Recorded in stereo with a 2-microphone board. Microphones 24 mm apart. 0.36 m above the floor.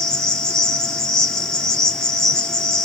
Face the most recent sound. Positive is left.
turn(degrees=20)  # may be behind; listen again after turning